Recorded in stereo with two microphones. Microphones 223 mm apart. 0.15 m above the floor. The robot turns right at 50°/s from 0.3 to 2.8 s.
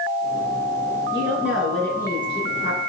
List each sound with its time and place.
1.1 s a woman speaking: 25° right, 2.5 m; by 2.8 s 55° left, 2.5 m